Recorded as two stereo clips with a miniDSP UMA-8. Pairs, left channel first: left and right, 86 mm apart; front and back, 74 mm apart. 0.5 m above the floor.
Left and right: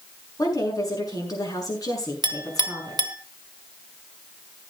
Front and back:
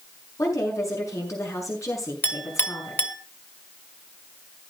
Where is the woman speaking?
45° left, 7 m.